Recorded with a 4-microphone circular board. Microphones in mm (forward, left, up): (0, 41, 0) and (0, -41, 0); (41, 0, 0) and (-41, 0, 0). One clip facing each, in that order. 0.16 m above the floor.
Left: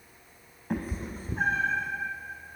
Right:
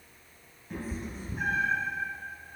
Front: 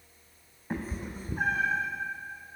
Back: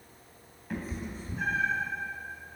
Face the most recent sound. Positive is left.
turn(degrees=15)